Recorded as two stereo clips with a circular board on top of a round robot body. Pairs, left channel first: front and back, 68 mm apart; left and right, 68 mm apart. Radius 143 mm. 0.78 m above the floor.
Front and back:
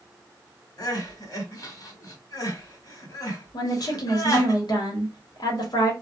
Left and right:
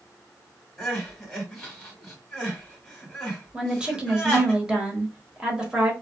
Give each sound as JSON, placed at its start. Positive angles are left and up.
{"t": 0.8, "sound": "crying", "azimuth_deg": 10, "distance_m": 1.5}
{"t": 3.5, "sound": "a woman speaking", "azimuth_deg": -10, "distance_m": 1.2}